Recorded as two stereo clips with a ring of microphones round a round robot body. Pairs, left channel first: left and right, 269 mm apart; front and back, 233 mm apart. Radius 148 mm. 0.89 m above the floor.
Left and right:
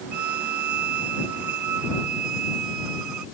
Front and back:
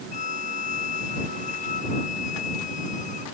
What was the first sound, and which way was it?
A violin, 65° right.